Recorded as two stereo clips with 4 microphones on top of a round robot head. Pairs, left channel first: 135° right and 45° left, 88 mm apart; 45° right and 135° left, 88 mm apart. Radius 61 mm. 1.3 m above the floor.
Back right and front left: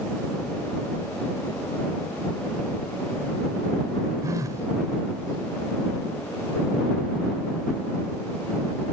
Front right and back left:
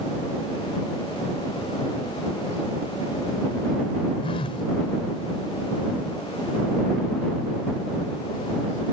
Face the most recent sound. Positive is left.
turn(degrees=-15)